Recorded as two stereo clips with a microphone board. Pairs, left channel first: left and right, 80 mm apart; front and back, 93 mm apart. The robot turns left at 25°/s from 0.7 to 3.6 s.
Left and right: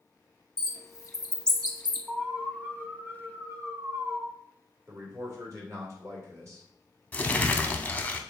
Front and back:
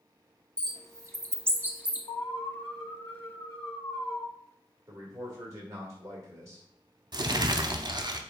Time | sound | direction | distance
0.6 | a bird | 135° left | 0.7 m
2.1 | an alarm | 5° right | 1.4 m
4.9 | a man speaking | 130° right | 1.9 m
7.1 | crumpling | 155° left | 0.5 m